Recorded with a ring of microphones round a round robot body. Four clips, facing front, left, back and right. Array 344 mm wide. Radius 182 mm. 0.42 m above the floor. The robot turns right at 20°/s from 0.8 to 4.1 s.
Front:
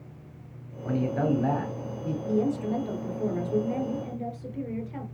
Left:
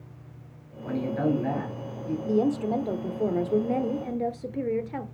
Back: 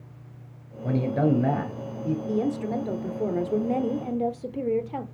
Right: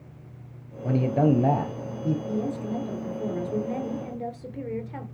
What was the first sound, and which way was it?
A man speaking, 130° right.